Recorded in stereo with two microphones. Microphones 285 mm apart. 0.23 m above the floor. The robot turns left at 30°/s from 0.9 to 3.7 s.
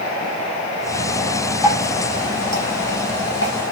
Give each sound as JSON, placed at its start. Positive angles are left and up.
{"t": 1.6, "sound": "dripping", "side_deg": -10, "distance_m": 6.5}